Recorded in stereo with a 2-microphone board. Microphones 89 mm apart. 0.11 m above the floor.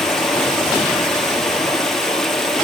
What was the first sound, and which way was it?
Running water, centre (ahead or behind).